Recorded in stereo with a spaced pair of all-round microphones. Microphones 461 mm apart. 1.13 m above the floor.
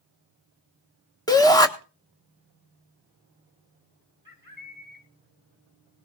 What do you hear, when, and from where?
1.3 s a shout: 10° left (ahead or behind), 1.4 m
4.2 s a bird: 45° left (ahead or behind), 2.5 m